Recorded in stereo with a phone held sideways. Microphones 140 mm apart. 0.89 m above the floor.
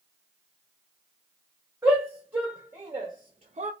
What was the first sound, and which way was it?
A shout, 10° right (ahead or behind).